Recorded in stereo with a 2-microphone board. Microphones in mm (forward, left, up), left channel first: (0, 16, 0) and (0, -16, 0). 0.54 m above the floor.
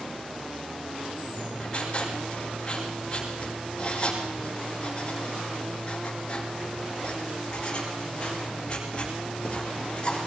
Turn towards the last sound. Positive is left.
turn(degrees=35)  # may be behind; listen again after turning